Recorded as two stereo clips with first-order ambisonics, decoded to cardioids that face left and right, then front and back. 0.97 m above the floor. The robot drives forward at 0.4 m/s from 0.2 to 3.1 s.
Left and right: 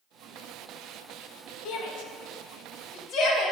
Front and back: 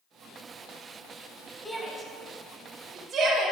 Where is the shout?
90° left, 0.9 m; by 3.5 s 125° left, 1.0 m.